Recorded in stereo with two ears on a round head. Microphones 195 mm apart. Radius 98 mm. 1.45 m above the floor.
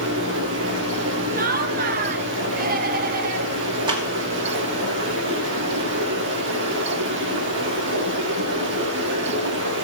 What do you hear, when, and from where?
0.0 s running water: 60° right (ahead or behind), 4 m
1.3 s laughter: 45° right (ahead or behind), 1.6 m
3.9 s a clap: 20° right (ahead or behind), 2.5 m